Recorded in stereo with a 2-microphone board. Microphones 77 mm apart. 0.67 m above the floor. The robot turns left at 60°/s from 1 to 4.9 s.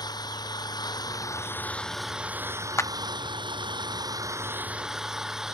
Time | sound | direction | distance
0.0 | an engine running | 60° left | ?
2.8 | a clap | 35° left (ahead or behind) | ?